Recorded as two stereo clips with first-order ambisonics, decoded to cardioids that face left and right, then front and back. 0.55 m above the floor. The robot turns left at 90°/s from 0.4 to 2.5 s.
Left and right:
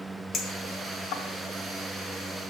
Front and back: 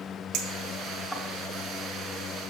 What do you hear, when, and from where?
0.3 s a clink: 155° left, 1.8 m; by 1.2 s 80° left, 1.8 m